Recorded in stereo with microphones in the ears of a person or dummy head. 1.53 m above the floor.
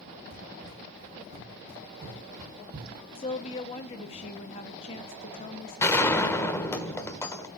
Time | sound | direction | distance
0.3 | running footsteps | 45° right (ahead or behind) | 4.5 m
3.1 | a woman speaking | 35° left (ahead or behind) | 0.9 m
5.8 | a gunshot | 15° left (ahead or behind) | 1.1 m